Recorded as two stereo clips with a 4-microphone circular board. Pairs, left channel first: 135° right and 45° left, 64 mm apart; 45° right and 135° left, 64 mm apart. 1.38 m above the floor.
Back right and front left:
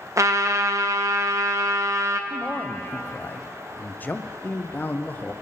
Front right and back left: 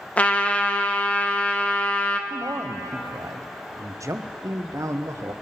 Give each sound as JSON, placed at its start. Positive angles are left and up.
{"t": 0.2, "sound": "a trumpet", "azimuth_deg": 20, "distance_m": 0.6}
{"t": 2.3, "sound": "a man speaking", "azimuth_deg": 165, "distance_m": 0.5}